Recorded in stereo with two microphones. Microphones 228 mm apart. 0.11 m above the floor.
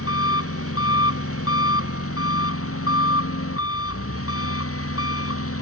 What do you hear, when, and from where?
0.0 s an engine running: 80° left